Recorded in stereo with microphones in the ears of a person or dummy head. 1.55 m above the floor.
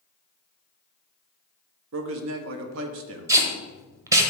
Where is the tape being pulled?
15° right (ahead or behind), 1.0 m.